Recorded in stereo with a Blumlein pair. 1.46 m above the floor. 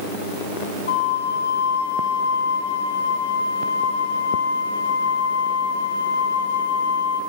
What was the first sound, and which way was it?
A flute, 65° left.